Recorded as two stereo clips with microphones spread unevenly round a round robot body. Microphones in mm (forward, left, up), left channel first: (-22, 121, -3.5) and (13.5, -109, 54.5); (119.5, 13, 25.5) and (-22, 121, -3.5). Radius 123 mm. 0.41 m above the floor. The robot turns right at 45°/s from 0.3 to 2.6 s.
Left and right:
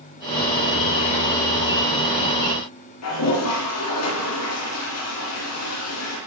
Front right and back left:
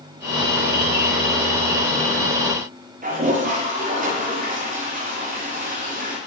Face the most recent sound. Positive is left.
turn(degrees=105)